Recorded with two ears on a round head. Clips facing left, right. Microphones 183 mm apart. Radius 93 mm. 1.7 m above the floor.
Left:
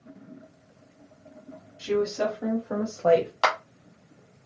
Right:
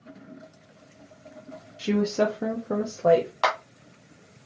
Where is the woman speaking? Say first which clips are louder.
Right 2 dB; 75° right (ahead or behind), 0.7 m; by 3.3 s 10° right (ahead or behind), 0.6 m.